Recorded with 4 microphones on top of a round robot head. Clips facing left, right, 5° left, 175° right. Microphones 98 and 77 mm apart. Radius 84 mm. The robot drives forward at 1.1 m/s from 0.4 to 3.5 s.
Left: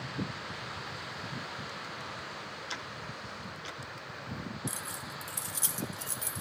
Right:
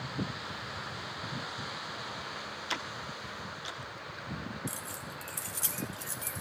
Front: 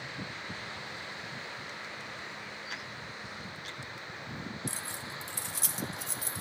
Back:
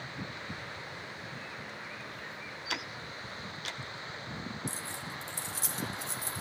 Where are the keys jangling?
25° left, 1.1 m.